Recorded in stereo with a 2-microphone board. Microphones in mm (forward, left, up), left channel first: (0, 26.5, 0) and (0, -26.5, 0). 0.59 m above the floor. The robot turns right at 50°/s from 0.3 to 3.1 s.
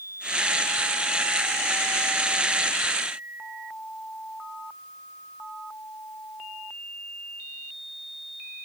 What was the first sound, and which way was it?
Only background noise.